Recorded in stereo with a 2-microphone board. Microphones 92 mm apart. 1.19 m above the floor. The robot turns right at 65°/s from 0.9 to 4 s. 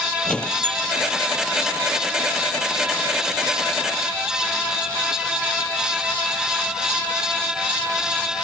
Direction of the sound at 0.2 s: 15° left (ahead or behind).